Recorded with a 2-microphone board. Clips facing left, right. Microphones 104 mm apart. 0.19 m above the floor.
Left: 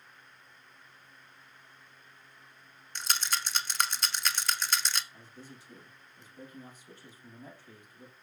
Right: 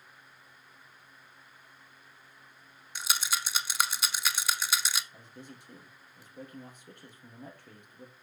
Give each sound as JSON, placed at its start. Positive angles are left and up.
{"t": 3.0, "sound": "a rattle", "side_deg": -5, "distance_m": 0.7}
{"t": 5.1, "sound": "a man speaking", "side_deg": -60, "distance_m": 5.0}